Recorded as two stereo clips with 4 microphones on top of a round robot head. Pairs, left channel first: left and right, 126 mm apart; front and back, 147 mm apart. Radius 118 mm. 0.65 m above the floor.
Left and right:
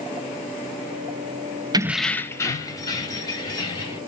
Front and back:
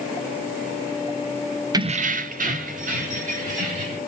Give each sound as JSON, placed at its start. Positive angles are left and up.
{"t": 1.7, "sound": "keys jangling", "azimuth_deg": -130, "distance_m": 0.5}